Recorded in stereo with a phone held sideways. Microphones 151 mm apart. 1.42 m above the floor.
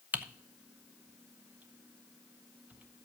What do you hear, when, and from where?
0.1 s typing on a keyboard: 10° right (ahead or behind), 0.7 m